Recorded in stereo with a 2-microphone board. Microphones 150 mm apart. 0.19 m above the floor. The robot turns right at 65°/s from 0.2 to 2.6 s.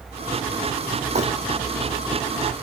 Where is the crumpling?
50° right (ahead or behind), 1.7 m; by 1.2 s 55° right (ahead or behind), 1.7 m.